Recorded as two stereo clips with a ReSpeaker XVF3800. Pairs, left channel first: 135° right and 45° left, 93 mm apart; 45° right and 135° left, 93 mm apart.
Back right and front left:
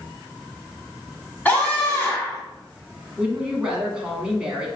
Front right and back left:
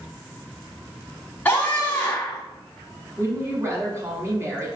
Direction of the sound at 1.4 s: 90° right.